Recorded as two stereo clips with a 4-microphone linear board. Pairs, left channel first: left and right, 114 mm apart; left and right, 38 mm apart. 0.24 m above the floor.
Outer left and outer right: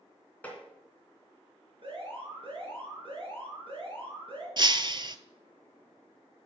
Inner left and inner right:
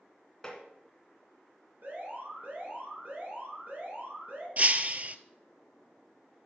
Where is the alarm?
50° right (ahead or behind), 5 m.